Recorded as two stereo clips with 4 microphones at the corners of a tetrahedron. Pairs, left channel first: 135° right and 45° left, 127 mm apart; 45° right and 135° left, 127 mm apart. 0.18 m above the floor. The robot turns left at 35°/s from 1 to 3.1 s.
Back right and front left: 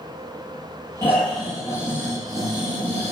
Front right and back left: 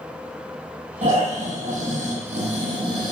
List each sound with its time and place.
1.0 s snoring: 155° left, 6.5 m; by 3.1 s 80° left, 6.5 m